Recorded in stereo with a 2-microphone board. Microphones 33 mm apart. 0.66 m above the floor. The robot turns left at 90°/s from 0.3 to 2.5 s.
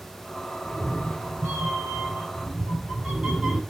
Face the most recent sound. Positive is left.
turn(degrees=-155)